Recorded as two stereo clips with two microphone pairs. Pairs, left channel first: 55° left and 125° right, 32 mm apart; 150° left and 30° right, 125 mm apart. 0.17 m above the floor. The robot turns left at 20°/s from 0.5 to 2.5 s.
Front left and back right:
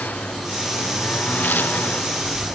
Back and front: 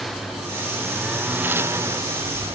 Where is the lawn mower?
65° left; by 2.5 s 25° left.